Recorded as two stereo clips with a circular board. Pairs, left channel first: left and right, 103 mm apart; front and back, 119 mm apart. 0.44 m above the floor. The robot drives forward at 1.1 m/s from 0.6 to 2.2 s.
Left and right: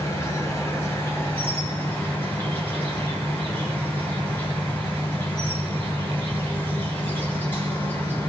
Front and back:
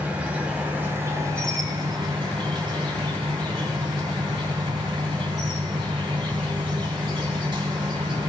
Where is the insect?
110° left, 2.5 m; by 8.3 s 155° left, 3 m.